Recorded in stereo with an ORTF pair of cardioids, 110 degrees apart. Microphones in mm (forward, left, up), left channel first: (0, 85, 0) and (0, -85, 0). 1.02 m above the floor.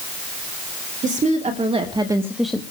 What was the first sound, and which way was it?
A woman speaking, 50° right.